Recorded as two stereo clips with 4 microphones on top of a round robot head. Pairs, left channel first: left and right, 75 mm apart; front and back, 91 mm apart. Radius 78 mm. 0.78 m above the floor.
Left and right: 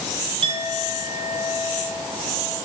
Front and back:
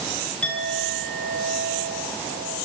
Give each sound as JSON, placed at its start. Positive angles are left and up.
{"t": 0.4, "sound": "a clink", "azimuth_deg": -85, "distance_m": 8.5}